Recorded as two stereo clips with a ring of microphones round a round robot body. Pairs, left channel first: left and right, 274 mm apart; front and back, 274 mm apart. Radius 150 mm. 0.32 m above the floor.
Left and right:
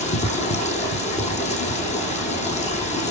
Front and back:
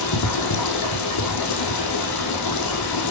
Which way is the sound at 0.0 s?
25° left.